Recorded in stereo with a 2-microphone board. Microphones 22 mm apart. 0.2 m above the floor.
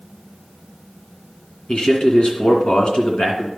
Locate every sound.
1.7 s a man speaking: 50° left (ahead or behind), 2.5 m